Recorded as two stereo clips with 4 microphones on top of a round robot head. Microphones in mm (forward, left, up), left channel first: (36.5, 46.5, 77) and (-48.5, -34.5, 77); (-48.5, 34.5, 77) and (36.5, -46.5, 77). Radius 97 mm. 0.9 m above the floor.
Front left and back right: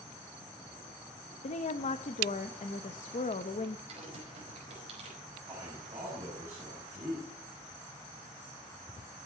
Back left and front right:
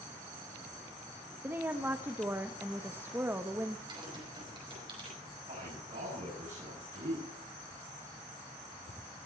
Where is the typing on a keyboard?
95° right, 5 m.